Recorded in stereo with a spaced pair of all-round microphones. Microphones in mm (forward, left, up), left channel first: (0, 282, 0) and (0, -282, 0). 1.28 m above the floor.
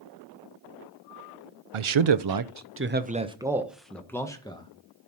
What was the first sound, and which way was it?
A man speaking, 65° right (ahead or behind).